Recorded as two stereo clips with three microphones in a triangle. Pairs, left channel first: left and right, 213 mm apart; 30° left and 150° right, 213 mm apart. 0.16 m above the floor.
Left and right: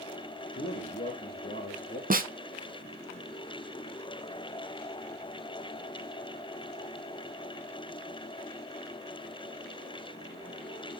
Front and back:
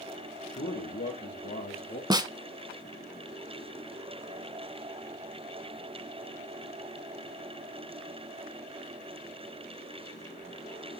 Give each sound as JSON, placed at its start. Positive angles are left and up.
{"t": 0.5, "sound": "a man speaking", "azimuth_deg": 60, "distance_m": 4.0}
{"t": 2.1, "sound": "a snare drum", "azimuth_deg": -90, "distance_m": 0.7}